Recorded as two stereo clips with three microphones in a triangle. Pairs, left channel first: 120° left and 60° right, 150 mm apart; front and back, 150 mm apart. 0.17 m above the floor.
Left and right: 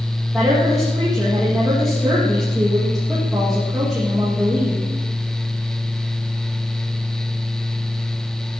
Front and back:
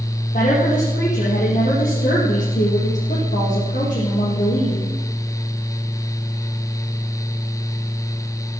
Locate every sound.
0.3 s a woman speaking: 25° left, 5 m